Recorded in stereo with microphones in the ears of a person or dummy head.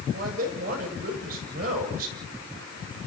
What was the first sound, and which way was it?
A man speaking, 55° right (ahead or behind).